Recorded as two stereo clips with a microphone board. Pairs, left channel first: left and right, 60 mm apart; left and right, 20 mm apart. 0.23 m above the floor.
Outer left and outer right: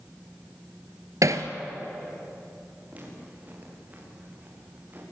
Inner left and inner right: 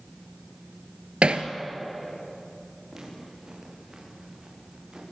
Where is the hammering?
75° right (ahead or behind), 1.6 m.